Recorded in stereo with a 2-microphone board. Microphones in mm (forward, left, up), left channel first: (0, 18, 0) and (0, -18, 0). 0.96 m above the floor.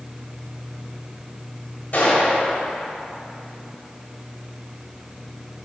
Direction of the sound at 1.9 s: 45° left (ahead or behind).